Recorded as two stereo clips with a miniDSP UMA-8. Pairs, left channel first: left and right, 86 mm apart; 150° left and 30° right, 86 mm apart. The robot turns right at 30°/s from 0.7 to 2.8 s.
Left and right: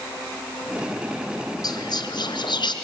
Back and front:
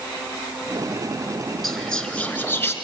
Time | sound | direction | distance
1.6 | whispering | 60° left | 2.5 m